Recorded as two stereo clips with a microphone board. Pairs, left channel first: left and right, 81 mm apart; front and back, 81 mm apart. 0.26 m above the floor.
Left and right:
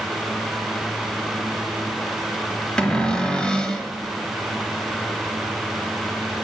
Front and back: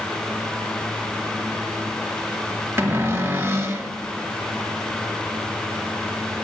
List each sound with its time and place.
2.8 s a cupboard door: 160° left, 1.1 m